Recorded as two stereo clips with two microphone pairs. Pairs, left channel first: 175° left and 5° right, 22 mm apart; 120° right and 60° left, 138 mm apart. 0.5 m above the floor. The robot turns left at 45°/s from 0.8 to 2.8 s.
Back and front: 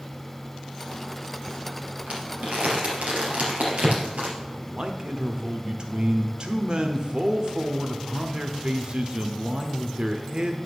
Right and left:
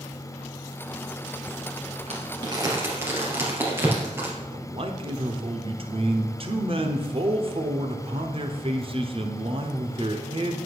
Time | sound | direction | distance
2.1 | crumpling | 20° left | 2.5 m
4.4 | a man speaking | 30° left | 1.0 m